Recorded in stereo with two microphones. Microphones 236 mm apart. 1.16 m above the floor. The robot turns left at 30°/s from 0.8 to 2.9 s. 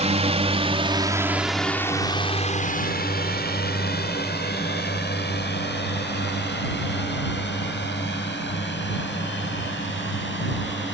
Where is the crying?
I don't hear crying.